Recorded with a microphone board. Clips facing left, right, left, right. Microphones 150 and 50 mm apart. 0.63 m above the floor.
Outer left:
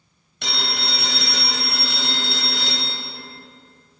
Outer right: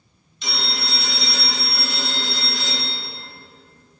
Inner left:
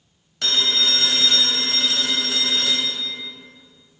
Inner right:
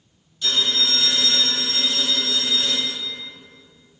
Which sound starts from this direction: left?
A phone ringing, at 0.4 s.